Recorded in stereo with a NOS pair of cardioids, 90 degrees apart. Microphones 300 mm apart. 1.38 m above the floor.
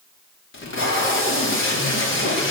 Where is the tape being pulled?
40° left, 4 m.